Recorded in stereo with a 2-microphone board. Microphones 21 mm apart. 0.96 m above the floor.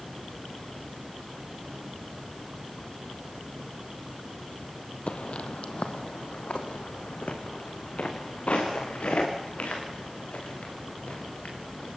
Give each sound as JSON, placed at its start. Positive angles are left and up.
{"t": 5.1, "sound": "footsteps", "side_deg": 55, "distance_m": 1.6}